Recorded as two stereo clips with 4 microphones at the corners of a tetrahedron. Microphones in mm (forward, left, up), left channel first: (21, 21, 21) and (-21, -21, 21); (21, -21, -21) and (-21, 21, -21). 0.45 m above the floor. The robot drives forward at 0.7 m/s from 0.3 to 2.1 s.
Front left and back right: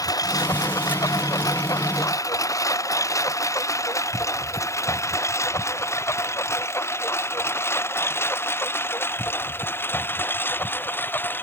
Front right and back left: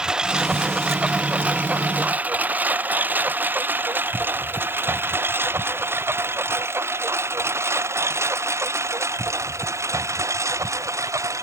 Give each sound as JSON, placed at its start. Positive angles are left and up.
{"t": 0.0, "sound": "a lawn mower", "azimuth_deg": 55}